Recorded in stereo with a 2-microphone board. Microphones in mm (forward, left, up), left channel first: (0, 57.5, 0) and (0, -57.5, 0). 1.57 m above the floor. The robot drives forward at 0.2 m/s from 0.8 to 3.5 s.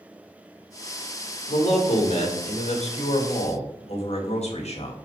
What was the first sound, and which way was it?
A man speaking, 75° left (ahead or behind).